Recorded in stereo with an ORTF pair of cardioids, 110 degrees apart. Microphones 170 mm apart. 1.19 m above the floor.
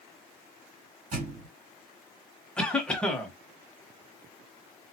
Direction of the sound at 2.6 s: 5° left.